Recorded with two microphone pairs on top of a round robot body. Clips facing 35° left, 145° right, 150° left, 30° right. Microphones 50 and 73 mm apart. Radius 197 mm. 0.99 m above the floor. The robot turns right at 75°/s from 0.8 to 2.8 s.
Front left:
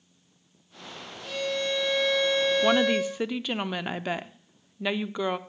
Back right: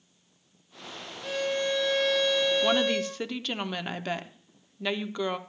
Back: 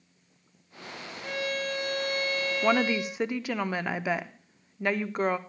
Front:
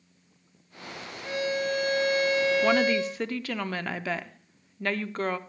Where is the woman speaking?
105° left, 0.8 m; by 5.4 s 120° left, 0.8 m.